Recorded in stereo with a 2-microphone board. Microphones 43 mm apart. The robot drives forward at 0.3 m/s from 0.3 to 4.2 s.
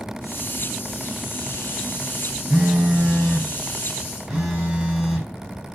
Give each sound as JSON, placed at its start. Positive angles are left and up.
{"t": 2.5, "sound": "a phone buzzing", "side_deg": -15, "distance_m": 2.5}